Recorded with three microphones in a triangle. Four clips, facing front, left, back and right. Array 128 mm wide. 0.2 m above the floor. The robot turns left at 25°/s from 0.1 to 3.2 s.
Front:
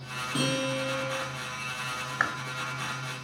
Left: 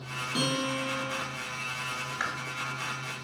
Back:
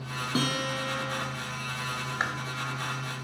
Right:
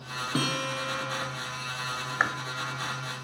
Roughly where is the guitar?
Behind right.